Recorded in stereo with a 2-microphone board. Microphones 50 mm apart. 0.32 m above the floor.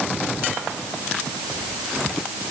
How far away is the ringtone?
No ringtone in this recording.